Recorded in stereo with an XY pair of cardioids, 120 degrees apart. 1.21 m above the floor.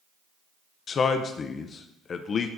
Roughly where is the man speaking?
Ahead left.